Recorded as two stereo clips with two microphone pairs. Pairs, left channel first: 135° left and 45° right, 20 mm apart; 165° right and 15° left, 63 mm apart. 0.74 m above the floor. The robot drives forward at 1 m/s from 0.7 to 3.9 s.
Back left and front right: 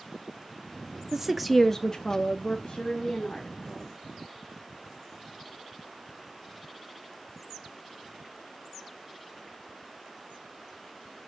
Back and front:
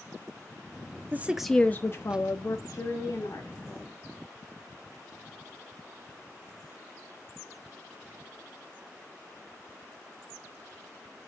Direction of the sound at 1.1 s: Straight ahead.